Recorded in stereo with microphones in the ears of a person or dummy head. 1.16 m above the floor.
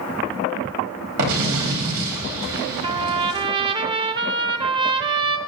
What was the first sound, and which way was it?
An explosion, 70° right (ahead or behind).